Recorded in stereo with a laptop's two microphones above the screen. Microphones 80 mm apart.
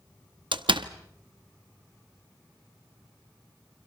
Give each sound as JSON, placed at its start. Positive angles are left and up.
{"t": 0.5, "sound": "a door slam", "side_deg": -85, "distance_m": 1.0}